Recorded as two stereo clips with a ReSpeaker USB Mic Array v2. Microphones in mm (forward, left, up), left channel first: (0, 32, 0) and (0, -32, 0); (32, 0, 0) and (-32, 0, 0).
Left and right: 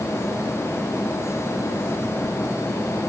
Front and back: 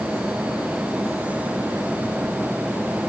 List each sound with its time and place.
Only background noise.